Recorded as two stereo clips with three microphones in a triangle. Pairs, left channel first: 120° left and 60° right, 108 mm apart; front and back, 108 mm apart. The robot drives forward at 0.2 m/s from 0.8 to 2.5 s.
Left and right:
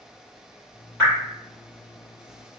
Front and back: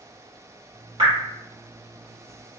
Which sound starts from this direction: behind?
Dripping, at 1.0 s.